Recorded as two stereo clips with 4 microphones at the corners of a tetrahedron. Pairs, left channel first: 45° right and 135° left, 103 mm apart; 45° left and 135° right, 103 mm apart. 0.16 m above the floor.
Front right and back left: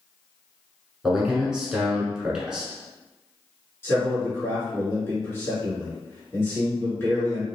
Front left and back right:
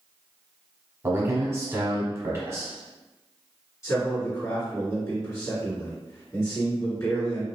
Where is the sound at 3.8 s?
5° left, 2.0 m.